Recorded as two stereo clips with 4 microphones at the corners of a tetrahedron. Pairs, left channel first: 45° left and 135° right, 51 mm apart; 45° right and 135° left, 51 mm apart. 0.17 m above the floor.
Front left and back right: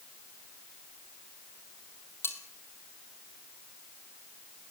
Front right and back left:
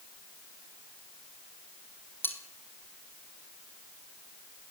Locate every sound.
2.2 s cutlery clinking: 5° left, 3.5 m